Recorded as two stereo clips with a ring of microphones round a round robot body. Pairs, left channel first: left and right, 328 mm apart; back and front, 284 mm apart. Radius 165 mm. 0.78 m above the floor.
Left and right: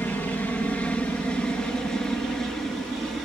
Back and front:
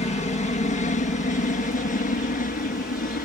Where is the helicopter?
165° left; by 3.3 s straight behind.